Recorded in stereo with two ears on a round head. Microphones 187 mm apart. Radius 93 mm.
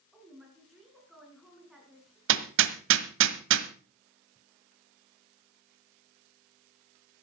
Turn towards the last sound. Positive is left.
turn(degrees=-65)  # may be behind; listen again after turning